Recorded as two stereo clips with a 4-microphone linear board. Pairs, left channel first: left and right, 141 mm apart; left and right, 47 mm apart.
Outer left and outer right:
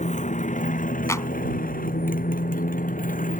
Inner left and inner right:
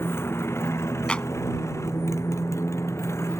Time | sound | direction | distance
0.0 | a motorcycle | 60° left (ahead or behind) | ?
1.1 | a clap | 20° left (ahead or behind) | ?